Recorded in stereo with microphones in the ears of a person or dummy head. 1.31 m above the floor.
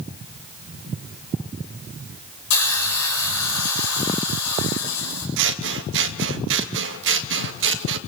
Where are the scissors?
65° right (ahead or behind), 1.4 m.